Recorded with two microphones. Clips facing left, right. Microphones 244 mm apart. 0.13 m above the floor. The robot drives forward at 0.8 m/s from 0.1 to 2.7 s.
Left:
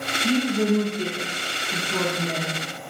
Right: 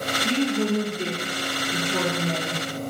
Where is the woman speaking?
10° left (ahead or behind), 1.5 m.